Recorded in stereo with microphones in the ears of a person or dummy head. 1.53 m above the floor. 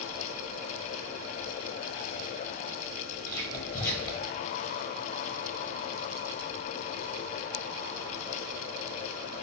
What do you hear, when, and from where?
3.3 s whispering: 20° left (ahead or behind), 1.0 m